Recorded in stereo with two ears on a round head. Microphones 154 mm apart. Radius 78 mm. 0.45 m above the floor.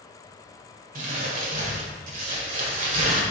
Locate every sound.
0.9 s crumpling: 55° right (ahead or behind), 1.7 m